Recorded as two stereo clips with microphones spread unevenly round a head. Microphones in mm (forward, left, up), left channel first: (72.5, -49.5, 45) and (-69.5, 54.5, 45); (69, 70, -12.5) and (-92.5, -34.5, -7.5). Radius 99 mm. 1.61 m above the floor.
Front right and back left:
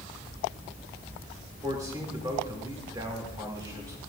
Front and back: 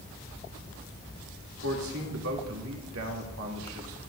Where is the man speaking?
145° right, 2.5 m.